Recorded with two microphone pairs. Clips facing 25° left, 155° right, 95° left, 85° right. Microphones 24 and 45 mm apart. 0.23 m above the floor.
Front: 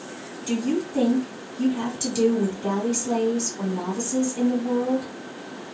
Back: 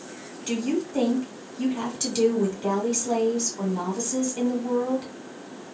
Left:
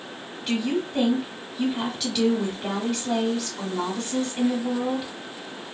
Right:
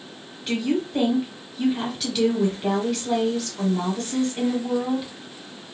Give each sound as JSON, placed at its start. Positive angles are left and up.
{"t": 0.5, "sound": "a woman speaking", "azimuth_deg": -175, "distance_m": 1.2}